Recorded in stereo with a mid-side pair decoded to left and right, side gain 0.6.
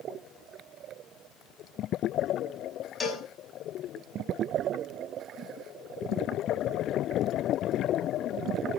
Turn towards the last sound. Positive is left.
turn(degrees=25)